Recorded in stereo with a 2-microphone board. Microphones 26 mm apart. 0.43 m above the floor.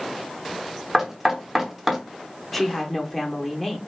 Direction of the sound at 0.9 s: 15° right (ahead or behind).